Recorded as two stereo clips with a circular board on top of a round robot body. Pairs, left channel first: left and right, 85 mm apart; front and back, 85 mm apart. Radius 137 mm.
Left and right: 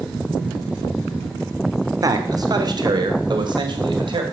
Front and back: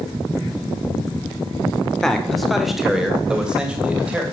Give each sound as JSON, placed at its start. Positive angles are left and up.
{"t": 2.0, "sound": "a man speaking", "azimuth_deg": -80, "distance_m": 1.5}